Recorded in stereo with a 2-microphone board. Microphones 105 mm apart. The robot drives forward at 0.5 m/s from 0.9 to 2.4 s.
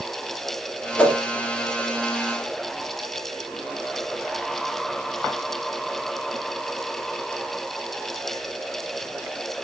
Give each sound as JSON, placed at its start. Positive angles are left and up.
{"t": 1.0, "sound": "a whoosh", "side_deg": 15, "distance_m": 1.0}